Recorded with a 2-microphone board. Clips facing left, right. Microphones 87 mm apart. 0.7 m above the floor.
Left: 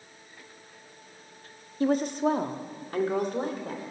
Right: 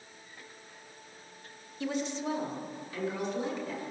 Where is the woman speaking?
40° left (ahead or behind), 1.0 m; by 3.8 s 45° left (ahead or behind), 3 m.